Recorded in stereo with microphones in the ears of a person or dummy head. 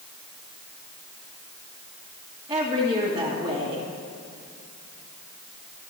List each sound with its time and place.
2.5 s a woman speaking: 10° right (ahead or behind), 2 m